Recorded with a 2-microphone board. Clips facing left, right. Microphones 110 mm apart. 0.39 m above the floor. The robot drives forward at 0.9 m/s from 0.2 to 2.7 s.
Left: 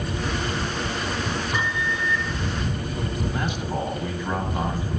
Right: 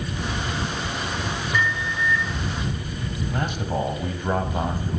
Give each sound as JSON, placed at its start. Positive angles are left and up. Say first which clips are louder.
{"t": 1.5, "sound": "a microwave", "louder": "right 1 dB", "side_deg": 20, "distance_m": 1.1}
{"t": 3.3, "sound": "a man speaking", "louder": "right 1 dB", "side_deg": -50, "distance_m": 1.9}